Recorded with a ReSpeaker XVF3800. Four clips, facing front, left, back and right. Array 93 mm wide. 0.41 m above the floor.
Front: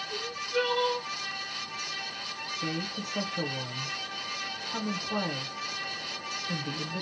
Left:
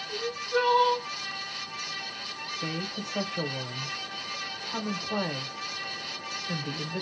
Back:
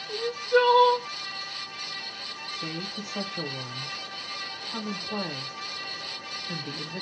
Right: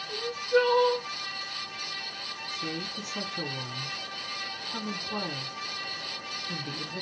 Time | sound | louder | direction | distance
0.1 | crying | right 4 dB, back 10 dB | 170° right | 0.9 m
2.5 | a woman speaking | left 2 dB, front 2 dB | 90° left | 0.9 m